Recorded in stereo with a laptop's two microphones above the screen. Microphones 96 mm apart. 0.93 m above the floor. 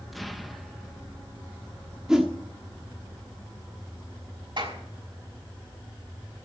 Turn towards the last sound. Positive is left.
turn(degrees=-55)  # may be behind; listen again after turning